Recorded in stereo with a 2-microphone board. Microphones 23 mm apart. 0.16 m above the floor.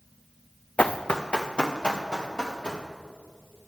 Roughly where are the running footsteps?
Left.